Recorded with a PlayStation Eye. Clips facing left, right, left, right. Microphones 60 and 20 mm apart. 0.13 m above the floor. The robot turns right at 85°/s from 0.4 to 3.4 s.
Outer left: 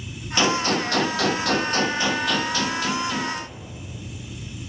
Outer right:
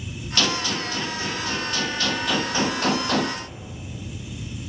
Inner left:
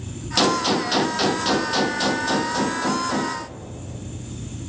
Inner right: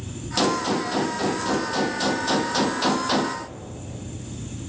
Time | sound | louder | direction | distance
0.4 | a gunshot | outer left 4 dB, inner left 3 dB | 20° left | 0.7 m